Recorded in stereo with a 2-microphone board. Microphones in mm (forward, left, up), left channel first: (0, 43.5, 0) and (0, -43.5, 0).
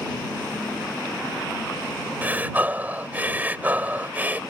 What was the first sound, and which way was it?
Breathing, 20° right (ahead or behind).